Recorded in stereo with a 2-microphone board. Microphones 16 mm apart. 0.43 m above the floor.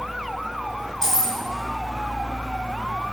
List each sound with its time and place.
1.0 s keys jangling: 35° left (ahead or behind), 3.5 m